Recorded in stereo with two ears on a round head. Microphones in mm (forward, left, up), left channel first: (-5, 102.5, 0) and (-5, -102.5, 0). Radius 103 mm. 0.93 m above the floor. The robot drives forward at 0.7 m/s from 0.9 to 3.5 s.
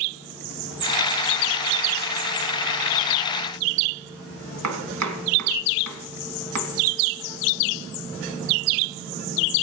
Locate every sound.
4.6 s chopping: 80° right, 2.5 m